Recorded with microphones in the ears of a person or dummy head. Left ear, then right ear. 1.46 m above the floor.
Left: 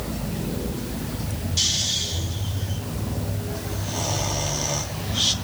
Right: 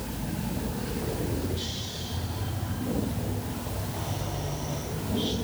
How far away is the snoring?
About 2.5 m.